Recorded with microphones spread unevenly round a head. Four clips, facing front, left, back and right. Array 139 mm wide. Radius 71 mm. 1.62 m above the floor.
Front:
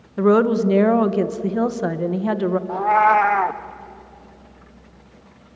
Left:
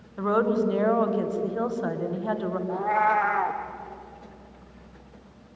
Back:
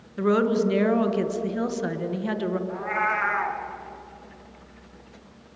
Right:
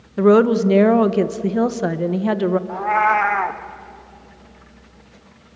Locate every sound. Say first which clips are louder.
0.2 s a woman speaking: right 10 dB, front 6 dB; 85° right, 1.5 m
2.7 s a cat meowing: right 1 dB, front 11 dB; 15° right, 1.1 m